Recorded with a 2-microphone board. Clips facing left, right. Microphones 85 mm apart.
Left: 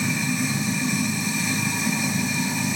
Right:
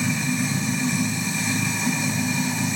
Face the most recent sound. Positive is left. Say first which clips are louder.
# right 1 dB
turn(degrees=5)  # may be behind; listen again after turning